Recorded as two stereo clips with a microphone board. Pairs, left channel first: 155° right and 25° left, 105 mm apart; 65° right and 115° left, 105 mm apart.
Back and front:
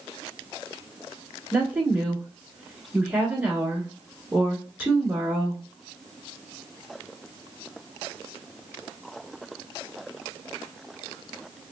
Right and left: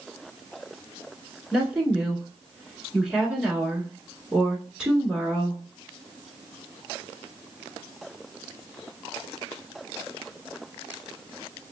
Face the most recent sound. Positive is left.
turn(degrees=50)